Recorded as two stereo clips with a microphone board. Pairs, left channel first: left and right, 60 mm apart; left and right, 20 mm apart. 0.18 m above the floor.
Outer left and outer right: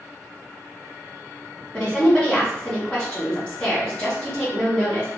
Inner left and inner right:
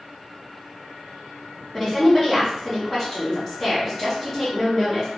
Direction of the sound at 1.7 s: 20° left (ahead or behind).